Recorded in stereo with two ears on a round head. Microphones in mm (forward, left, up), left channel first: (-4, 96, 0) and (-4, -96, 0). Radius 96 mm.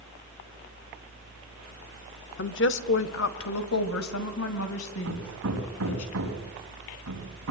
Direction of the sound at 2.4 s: 55° left (ahead or behind).